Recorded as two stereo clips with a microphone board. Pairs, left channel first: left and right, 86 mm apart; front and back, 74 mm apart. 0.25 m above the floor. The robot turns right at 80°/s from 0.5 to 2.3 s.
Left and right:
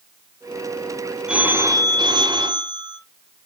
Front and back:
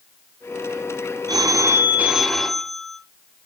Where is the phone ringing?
170° right, 1.7 m; by 3.0 s 85° right, 1.7 m.